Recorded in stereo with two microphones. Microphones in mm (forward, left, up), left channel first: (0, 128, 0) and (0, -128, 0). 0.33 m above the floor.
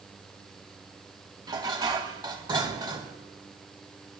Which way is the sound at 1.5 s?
15° right (ahead or behind).